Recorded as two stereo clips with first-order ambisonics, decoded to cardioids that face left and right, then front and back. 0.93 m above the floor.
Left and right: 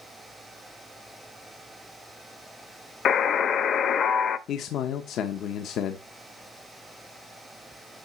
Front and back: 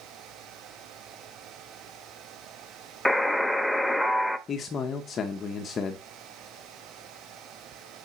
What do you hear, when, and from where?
3.0 s a buzzer: 90° left, 0.7 m
4.5 s a man speaking: 55° left, 1.0 m